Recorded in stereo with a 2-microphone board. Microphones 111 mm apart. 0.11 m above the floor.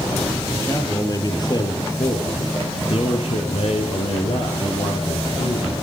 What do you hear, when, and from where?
0.5 s a man speaking: 25° left (ahead or behind), 3 m; by 5.7 s 65° left (ahead or behind), 4 m